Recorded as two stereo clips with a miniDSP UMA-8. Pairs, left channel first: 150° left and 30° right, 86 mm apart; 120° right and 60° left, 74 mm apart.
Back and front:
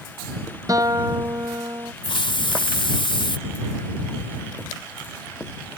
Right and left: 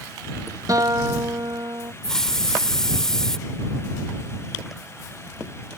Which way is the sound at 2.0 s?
155° left.